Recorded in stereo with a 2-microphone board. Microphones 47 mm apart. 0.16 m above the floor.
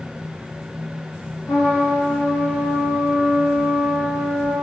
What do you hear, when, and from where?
1.5 s a trumpet: 80° left, 3.5 m